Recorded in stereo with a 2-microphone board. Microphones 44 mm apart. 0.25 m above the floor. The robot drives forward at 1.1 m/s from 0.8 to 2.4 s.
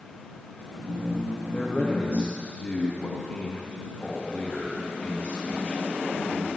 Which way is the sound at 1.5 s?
30° left (ahead or behind).